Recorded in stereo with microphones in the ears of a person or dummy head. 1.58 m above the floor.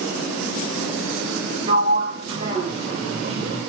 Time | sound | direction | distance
1.7 | a sliding door | 35° right (ahead or behind) | 1.6 m